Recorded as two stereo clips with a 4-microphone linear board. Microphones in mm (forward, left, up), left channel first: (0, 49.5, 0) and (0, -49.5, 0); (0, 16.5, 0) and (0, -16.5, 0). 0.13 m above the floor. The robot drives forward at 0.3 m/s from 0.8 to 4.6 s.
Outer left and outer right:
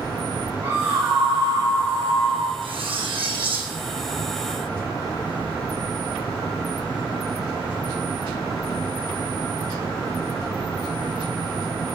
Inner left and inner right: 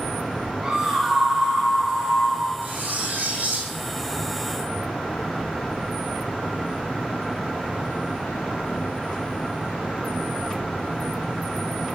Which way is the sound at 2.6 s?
65° right (ahead or behind).